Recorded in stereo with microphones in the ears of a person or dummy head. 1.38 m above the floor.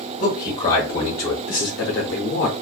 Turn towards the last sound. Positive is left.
turn(degrees=45)  # may be behind; listen again after turning